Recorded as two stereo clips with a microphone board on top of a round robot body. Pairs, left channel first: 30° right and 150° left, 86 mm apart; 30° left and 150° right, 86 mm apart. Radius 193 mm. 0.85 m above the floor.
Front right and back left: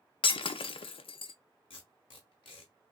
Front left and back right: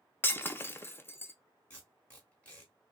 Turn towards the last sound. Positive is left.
turn(degrees=-45)